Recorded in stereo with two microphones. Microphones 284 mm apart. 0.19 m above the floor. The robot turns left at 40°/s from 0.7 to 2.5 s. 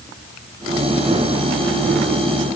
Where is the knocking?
No knocking in this recording.